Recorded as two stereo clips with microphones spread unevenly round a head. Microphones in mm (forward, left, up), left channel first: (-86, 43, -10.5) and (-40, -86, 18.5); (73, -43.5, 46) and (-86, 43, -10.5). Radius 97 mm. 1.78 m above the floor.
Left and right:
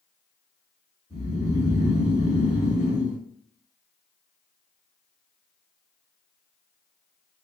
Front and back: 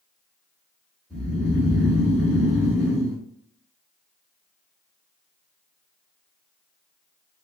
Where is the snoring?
40° left, 1.8 m.